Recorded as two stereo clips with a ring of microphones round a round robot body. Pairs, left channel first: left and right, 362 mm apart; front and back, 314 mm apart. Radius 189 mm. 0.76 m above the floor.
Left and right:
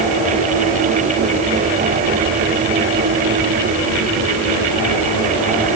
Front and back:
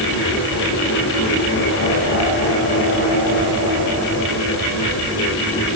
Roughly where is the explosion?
I don't hear an explosion.